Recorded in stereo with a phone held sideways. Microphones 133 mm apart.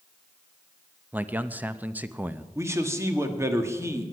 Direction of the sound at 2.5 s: 20° right (ahead or behind).